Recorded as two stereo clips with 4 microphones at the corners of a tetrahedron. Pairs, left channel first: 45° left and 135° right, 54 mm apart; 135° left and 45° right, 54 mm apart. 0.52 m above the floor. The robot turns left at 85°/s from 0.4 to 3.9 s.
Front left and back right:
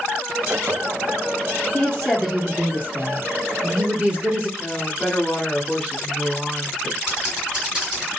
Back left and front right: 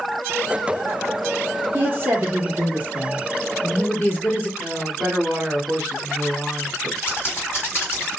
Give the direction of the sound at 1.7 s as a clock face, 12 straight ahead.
12 o'clock.